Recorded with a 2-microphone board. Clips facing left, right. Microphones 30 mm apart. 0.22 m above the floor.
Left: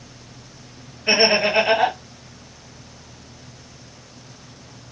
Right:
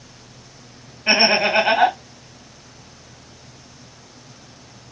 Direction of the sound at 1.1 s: 50° right (ahead or behind).